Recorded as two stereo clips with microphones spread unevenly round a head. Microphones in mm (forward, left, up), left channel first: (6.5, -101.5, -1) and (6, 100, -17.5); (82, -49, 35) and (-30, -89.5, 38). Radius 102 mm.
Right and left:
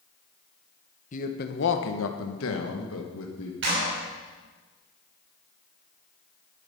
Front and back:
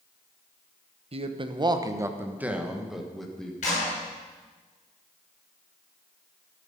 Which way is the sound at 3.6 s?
60° left.